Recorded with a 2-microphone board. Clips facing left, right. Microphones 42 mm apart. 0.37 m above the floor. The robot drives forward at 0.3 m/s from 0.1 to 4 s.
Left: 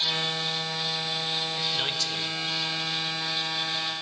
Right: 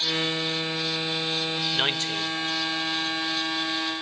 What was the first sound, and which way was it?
A man speaking, 35° right (ahead or behind).